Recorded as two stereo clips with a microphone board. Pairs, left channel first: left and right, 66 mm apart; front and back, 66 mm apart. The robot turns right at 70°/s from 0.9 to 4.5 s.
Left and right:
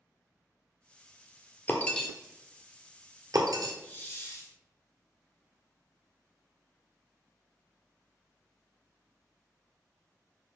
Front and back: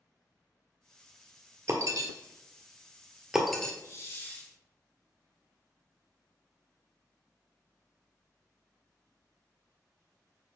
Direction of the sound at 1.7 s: 145° left.